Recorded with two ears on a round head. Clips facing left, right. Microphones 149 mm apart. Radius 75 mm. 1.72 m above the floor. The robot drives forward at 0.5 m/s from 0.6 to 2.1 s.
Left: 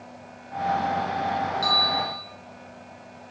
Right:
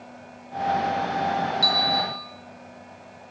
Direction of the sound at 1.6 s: 30° right (ahead or behind).